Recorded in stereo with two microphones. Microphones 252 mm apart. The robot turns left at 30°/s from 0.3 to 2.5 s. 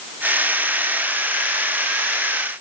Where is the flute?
No flute in this recording.